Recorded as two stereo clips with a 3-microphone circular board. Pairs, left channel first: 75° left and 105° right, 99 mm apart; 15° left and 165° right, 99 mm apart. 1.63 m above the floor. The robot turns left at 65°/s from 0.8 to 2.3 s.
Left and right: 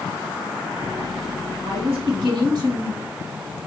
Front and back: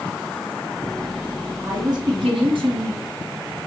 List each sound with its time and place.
1.6 s a woman speaking: 100° right, 3 m; by 3.7 s 145° right, 3 m